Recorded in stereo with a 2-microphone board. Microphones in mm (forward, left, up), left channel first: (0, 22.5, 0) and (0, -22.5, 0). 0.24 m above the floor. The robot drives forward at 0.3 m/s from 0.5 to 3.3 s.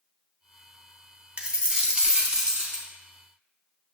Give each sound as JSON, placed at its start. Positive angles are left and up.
{"t": 1.4, "sound": "a dropped coin", "side_deg": -25, "distance_m": 0.6}